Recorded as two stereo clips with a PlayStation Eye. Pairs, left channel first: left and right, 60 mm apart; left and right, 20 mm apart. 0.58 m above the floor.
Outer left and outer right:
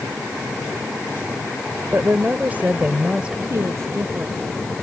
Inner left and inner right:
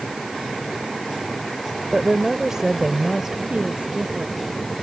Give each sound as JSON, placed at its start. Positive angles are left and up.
{"t": 1.9, "sound": "a woman speaking", "side_deg": -40}
{"t": 3.5, "sound": "a woman speaking", "side_deg": -50}